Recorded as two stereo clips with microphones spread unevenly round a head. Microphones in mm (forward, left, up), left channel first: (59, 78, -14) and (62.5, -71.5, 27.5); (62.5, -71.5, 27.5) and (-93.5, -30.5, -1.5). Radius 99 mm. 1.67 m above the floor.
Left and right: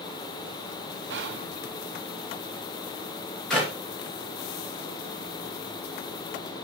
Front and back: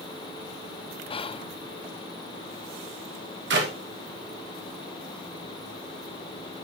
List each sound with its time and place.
1.1 s whispering: 80° right, 0.5 m
3.5 s a clap: straight behind, 2.0 m